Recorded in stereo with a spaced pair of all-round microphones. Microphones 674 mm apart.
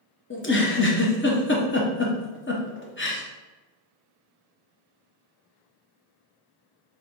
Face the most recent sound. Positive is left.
turn(degrees=20)  # may be behind; listen again after turning